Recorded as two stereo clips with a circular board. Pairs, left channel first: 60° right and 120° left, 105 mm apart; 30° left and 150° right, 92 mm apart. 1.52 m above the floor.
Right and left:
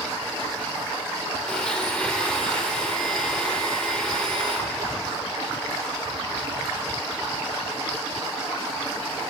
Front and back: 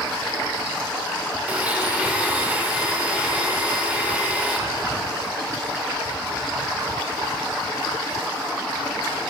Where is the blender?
125° right, 1.2 m.